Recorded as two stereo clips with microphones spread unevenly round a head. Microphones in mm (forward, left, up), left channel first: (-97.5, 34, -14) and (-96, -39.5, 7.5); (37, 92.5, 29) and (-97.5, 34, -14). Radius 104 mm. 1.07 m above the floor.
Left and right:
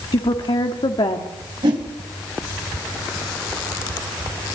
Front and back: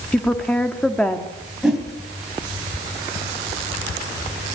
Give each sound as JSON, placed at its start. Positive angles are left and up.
{"t": 0.1, "sound": "a woman speaking", "azimuth_deg": 105, "distance_m": 1.8}
{"t": 1.6, "sound": "a whoosh", "azimuth_deg": -65, "distance_m": 2.5}